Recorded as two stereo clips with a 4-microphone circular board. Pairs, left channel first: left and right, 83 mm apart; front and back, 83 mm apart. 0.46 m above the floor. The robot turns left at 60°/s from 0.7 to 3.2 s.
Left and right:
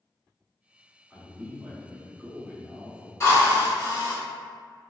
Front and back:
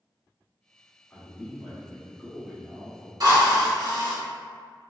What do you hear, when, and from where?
1.1 s a man speaking: 25° right, 0.7 m; by 3.1 s 145° right, 0.7 m
3.2 s a drill: 140° left, 0.8 m